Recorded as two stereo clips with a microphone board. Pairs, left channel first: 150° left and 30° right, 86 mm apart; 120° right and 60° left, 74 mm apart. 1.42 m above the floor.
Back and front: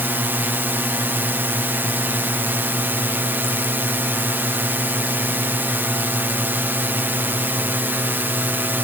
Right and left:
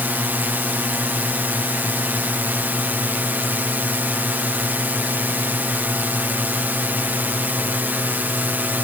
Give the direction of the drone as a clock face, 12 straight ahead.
12 o'clock.